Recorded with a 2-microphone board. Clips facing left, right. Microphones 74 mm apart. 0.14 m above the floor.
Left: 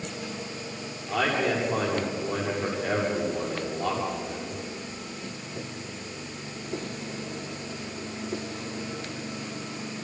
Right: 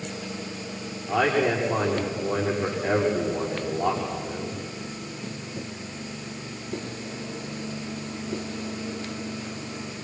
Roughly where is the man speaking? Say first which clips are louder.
Right 3 dB; centre.